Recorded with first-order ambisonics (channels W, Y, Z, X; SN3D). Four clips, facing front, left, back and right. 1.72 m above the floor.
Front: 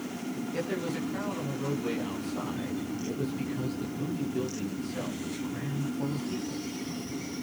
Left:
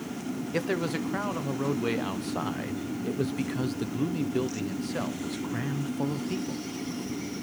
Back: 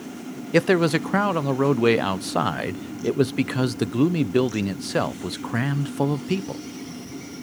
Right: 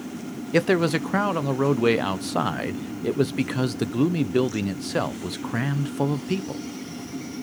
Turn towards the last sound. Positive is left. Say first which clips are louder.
# right 9 dB, back 16 dB
turn(degrees=-150)